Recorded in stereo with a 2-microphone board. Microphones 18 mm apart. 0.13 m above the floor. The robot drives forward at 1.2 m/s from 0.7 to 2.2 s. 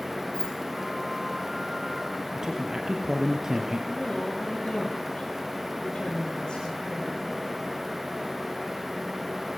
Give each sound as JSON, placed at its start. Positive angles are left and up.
{"t": 0.3, "sound": "keys jangling", "side_deg": 60, "distance_m": 3.5}
{"t": 2.4, "sound": "a man speaking", "side_deg": -30, "distance_m": 2.5}
{"t": 3.9, "sound": "a woman speaking", "side_deg": 55, "distance_m": 6.5}